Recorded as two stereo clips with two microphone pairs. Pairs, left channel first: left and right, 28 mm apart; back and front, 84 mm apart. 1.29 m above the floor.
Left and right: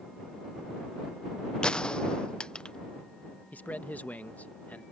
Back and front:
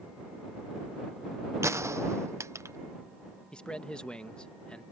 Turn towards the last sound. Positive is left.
turn(degrees=100)